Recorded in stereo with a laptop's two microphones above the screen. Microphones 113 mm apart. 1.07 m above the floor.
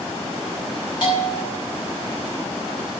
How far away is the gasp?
I don't hear a gasp.